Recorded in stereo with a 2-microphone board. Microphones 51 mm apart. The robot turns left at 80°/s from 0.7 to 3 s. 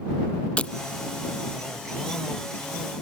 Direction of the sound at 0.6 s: 25° left (ahead or behind).